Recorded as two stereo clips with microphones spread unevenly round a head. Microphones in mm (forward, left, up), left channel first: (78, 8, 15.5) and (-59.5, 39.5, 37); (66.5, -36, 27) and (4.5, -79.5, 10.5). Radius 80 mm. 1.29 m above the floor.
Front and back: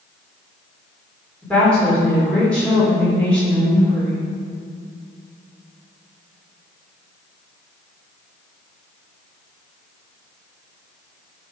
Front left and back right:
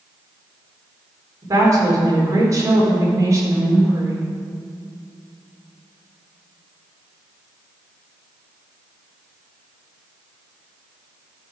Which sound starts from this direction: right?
A woman speaking, at 1.4 s.